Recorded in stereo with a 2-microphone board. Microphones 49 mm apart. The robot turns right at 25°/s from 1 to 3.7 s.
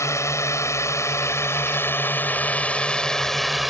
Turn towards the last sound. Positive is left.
turn(degrees=-5)  # may be behind; listen again after turning